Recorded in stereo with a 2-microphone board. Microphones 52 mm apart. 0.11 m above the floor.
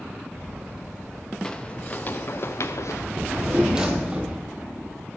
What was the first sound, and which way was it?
Footsteps, 15° left (ahead or behind).